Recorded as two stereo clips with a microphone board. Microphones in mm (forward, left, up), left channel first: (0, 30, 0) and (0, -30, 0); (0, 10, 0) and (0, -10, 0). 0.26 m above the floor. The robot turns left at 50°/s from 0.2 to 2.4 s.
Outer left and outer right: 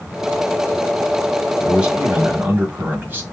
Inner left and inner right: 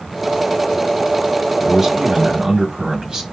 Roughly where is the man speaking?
Ahead.